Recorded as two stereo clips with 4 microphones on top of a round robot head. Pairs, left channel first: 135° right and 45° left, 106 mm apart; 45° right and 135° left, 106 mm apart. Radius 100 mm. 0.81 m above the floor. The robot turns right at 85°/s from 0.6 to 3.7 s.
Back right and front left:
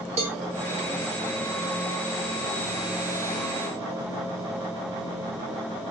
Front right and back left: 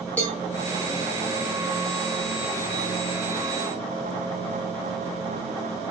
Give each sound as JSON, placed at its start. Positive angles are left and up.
{"t": 0.2, "sound": "a cowbell", "azimuth_deg": 30, "distance_m": 0.8}